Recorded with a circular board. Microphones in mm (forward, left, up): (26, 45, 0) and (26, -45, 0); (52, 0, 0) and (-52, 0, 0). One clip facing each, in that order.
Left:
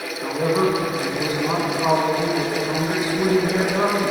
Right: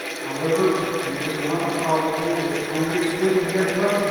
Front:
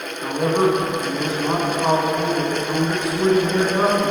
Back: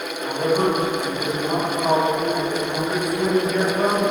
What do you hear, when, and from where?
0.2 s a man speaking: 45° left, 1.8 m